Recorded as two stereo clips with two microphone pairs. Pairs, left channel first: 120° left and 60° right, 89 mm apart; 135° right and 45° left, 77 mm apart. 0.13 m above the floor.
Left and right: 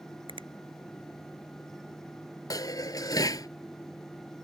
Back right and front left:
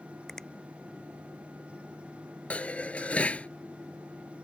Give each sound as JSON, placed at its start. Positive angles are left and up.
{"t": 0.3, "sound": "a finger snap", "azimuth_deg": -50}
{"t": 2.5, "sound": "dishes clattering", "azimuth_deg": 155}